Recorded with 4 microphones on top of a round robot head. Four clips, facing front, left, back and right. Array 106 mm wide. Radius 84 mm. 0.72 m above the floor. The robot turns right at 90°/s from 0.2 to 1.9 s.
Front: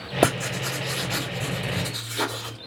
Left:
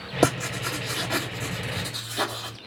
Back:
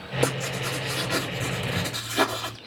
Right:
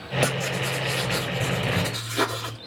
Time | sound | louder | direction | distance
0.2 | writing | left 4 dB, front 4 dB | 25° left | 2.5 m